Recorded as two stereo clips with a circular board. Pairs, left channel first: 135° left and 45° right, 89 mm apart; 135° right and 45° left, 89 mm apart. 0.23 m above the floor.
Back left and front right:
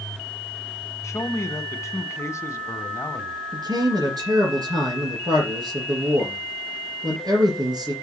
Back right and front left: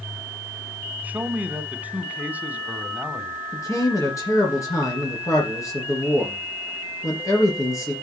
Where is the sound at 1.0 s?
105° left, 1.2 m.